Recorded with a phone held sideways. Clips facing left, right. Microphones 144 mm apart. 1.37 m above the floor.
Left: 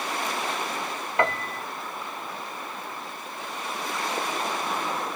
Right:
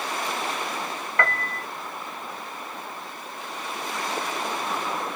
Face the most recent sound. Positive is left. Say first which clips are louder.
# left 2 dB
turn(degrees=20)  # may be behind; listen again after turning